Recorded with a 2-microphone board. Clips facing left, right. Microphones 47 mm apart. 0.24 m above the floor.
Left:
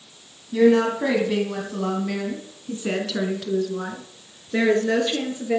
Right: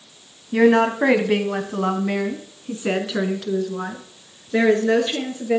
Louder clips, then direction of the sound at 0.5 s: Right 1 dB; 45° right (ahead or behind).